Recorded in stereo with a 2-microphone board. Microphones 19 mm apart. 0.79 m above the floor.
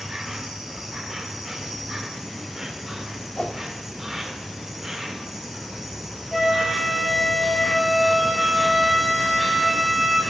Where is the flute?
5° left (ahead or behind), 4 m.